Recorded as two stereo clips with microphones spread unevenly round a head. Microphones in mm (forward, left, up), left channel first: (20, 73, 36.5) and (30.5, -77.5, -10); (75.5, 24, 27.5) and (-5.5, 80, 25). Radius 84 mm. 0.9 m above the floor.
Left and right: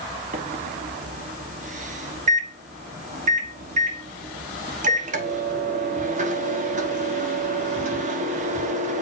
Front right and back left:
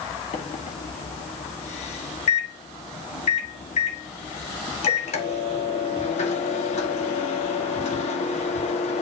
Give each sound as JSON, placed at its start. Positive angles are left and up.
{"t": 0.3, "sound": "a microwave", "azimuth_deg": -50, "distance_m": 1.2}